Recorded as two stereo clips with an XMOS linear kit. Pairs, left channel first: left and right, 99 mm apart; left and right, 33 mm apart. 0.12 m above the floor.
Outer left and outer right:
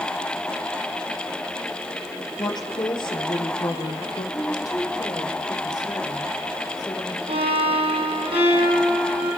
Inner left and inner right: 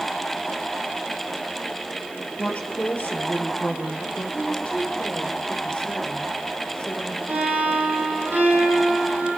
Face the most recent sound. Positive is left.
turn(degrees=-70)  # may be behind; listen again after turning